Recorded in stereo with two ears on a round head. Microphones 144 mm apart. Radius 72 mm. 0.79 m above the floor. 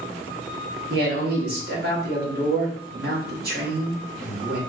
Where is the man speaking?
65° right (ahead or behind), 2 m.